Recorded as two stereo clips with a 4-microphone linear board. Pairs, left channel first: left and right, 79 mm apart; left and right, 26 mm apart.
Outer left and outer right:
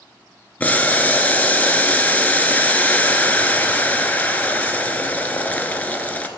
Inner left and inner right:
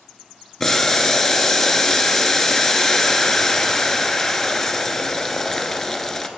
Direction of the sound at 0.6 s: 20° left (ahead or behind).